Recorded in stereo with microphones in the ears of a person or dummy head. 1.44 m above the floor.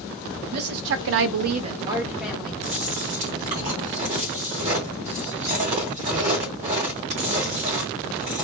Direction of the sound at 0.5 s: 50° right (ahead or behind).